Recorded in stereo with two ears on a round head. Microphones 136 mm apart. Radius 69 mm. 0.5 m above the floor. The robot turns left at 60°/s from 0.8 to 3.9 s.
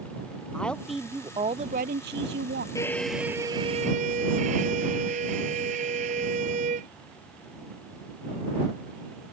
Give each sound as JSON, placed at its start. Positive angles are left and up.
{"t": 0.5, "sound": "a woman speaking", "azimuth_deg": 5}
{"t": 2.8, "sound": "a violin", "azimuth_deg": 20}